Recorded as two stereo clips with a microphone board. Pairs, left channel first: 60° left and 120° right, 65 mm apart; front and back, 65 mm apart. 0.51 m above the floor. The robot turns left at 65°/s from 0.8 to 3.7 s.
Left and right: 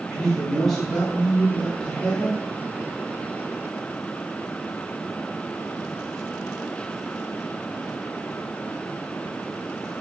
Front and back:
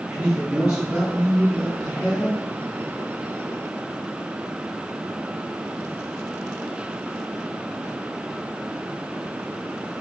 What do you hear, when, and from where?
0.1 s a man speaking: 140° left, 0.9 m; by 2.4 s 40° left, 0.9 m